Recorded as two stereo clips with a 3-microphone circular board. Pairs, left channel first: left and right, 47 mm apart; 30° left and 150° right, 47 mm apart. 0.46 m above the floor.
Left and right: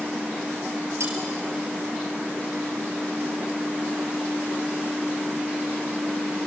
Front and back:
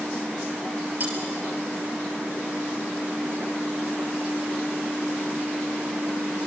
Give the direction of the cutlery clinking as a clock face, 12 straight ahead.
3 o'clock.